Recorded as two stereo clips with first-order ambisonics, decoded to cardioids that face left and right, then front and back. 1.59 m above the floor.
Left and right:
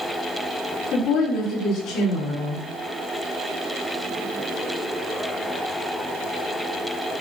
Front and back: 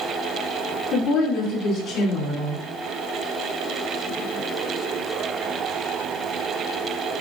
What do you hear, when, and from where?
0.9 s a woman speaking: 60° left, 4.5 m